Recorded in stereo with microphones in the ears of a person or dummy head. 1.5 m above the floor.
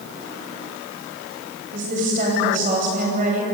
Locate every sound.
1.7 s a woman speaking: 45° right (ahead or behind), 10 m